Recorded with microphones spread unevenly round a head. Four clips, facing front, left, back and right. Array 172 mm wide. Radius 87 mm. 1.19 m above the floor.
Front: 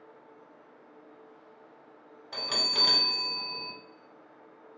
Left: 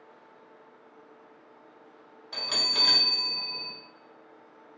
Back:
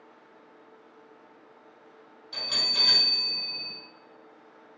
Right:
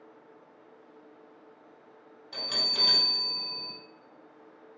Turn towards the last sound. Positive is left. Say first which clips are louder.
# left 2 dB, front 3 dB
turn(degrees=5)